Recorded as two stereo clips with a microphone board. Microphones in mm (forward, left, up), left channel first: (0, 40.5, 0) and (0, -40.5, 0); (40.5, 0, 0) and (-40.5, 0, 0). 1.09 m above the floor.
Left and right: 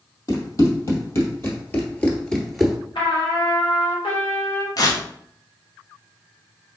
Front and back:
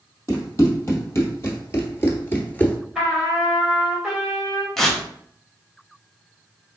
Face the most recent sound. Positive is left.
turn(degrees=80)